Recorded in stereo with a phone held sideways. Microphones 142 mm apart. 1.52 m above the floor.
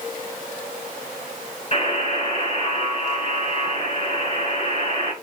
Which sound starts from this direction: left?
A buzzer, at 1.7 s.